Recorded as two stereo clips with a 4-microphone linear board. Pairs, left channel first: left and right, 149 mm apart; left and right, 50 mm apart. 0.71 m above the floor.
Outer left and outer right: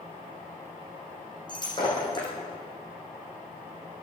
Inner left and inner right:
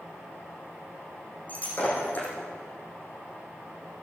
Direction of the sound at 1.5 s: 30° left (ahead or behind).